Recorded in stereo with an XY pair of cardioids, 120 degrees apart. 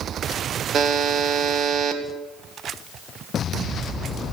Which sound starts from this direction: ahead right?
A buzzer, at 0.7 s.